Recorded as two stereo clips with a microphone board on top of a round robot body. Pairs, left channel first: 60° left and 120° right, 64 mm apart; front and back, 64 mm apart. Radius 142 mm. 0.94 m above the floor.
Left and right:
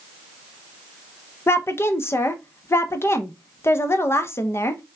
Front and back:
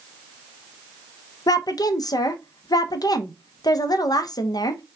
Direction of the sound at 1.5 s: 10° left.